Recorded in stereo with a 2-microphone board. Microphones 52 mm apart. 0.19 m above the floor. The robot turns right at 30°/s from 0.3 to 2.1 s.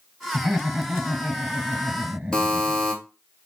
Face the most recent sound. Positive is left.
turn(degrees=15)  # may be behind; listen again after turning